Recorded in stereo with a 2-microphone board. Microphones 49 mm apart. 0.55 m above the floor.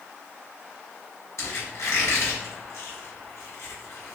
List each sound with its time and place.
1.4 s a squeak: 70° left (ahead or behind), 1.3 m